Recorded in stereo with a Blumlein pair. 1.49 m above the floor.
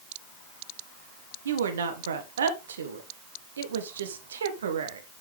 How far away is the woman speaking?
About 1.3 m.